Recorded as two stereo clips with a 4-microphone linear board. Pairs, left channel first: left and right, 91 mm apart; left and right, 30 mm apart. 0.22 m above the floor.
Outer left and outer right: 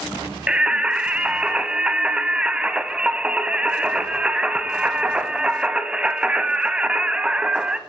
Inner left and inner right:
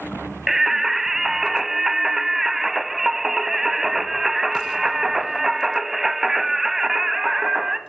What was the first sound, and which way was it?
Singing, 10° right (ahead or behind).